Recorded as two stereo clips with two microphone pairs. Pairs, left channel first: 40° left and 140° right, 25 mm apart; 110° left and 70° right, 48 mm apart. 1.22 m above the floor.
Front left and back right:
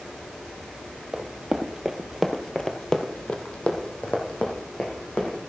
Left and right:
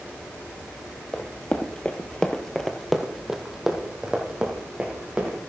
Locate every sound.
1.1 s running footsteps: 170° left, 1.9 m; by 5.4 s straight ahead, 4 m